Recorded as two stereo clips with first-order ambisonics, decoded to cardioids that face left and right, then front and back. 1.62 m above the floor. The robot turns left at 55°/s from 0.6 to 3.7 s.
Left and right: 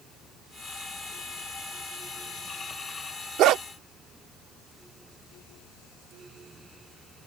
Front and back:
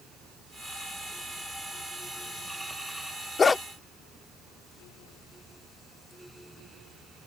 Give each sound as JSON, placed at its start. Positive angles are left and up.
{"t": 3.4, "sound": "a dog barking", "azimuth_deg": -65}